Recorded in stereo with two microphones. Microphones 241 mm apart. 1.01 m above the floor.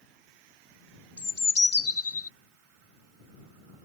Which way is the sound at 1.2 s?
85° left.